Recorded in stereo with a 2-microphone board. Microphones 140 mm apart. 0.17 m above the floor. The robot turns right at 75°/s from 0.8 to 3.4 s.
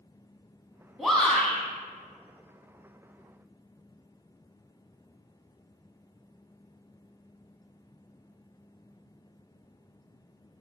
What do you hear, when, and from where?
1.0 s a shout: centre (ahead or behind), 1.1 m; by 1.6 s 15° left (ahead or behind), 1.1 m